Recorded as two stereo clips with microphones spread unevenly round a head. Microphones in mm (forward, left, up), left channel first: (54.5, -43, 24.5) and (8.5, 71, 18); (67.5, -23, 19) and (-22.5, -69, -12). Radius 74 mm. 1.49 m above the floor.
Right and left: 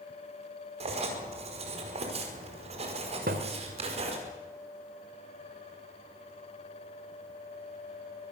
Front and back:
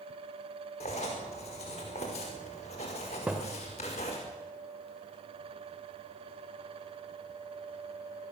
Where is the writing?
75° left, 5 m.